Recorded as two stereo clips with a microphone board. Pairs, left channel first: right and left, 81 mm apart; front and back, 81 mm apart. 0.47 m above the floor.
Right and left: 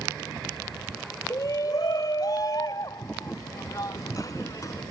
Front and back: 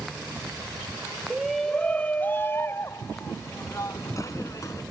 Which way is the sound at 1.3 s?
100° right.